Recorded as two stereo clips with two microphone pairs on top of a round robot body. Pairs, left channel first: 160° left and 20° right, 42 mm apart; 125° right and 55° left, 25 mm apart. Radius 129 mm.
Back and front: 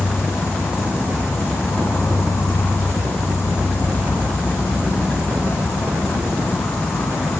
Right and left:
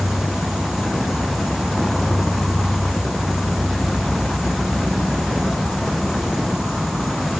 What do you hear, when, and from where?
0.0 s an insect: 145° left, 5.5 m